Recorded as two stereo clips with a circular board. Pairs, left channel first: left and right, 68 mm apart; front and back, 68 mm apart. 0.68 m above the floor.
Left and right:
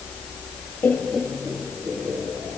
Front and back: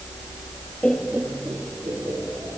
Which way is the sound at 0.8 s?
55° left.